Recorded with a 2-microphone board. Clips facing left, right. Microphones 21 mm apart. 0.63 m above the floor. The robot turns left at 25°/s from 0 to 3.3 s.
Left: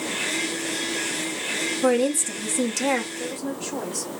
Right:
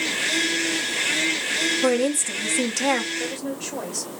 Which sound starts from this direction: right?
A woman speaking, at 3.2 s.